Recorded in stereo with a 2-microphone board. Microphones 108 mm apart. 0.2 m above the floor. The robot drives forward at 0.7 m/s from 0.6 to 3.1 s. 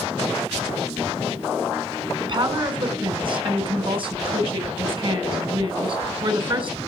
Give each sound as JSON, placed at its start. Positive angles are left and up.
{"t": 2.2, "sound": "a woman speaking", "side_deg": -45, "distance_m": 1.9}